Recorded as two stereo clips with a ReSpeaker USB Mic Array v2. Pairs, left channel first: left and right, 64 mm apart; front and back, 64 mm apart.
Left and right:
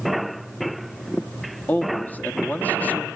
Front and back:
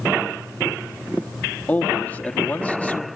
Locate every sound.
1.7 s a man speaking: 50° left, 1.4 m